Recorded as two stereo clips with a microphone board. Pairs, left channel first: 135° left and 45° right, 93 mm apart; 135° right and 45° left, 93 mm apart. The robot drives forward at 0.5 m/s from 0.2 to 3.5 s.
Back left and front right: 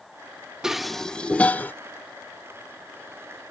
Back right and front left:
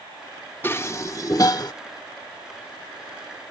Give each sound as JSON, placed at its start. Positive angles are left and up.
{"t": 0.6, "sound": "dishes clattering", "azimuth_deg": -120}